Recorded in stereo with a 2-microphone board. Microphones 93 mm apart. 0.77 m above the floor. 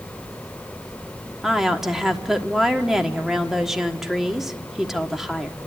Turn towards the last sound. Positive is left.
turn(degrees=-5)  # may be behind; listen again after turning